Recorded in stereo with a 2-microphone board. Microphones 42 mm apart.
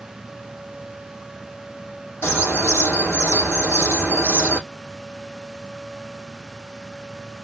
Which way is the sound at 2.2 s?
65° left (ahead or behind).